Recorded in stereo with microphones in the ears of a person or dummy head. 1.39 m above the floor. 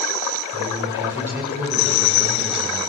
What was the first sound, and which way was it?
A man speaking, 20° right (ahead or behind).